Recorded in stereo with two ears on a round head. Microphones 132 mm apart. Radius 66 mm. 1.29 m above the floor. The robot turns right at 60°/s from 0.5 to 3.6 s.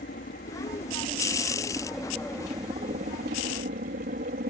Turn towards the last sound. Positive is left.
turn(degrees=-85)